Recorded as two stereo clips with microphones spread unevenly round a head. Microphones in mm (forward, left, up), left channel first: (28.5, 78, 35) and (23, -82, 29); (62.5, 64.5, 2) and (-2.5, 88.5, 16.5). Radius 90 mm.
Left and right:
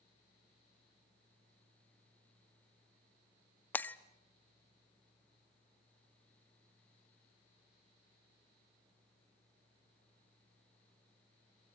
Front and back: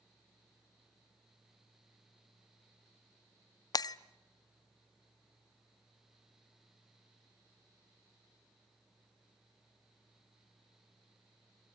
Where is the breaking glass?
10° left, 0.6 m.